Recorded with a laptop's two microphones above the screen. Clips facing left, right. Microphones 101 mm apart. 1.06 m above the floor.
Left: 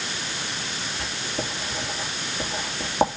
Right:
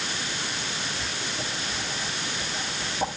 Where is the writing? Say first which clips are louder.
Left 2 dB; 70° left (ahead or behind), 3 m.